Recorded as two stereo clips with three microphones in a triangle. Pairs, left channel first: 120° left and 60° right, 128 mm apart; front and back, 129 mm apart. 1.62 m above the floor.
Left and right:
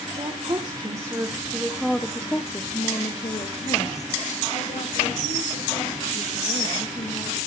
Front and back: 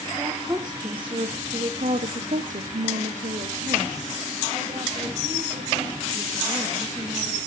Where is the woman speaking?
110° right, 1.7 m; by 7.4 s 125° left, 3.5 m.